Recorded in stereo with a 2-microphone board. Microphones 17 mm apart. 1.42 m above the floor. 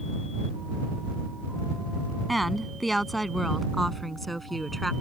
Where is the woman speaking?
5° left (ahead or behind); by 4.9 s 10° left (ahead or behind).